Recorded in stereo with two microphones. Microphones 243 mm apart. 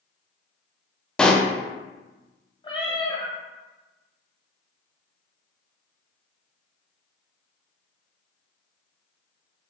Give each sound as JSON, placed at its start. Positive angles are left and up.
{"t": 1.2, "sound": "a pop", "side_deg": 5, "distance_m": 0.5}
{"t": 2.6, "sound": "a cat meowing", "side_deg": 20, "distance_m": 1.1}